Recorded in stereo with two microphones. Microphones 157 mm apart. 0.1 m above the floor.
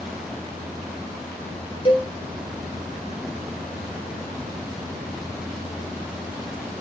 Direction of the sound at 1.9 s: 30° left (ahead or behind).